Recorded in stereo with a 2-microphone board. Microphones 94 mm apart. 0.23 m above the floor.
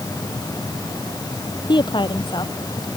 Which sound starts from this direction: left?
A woman speaking, at 1.7 s.